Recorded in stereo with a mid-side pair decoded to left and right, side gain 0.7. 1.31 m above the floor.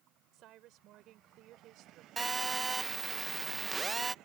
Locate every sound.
0.3 s a woman speaking: 55° right
2.2 s a phone buzzing: 20° right